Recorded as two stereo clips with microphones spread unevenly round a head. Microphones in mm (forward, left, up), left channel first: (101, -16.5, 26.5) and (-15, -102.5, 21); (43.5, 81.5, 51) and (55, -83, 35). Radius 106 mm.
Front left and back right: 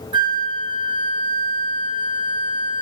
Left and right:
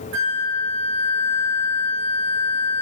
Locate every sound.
0.1 s a flute: 80° right, 0.9 m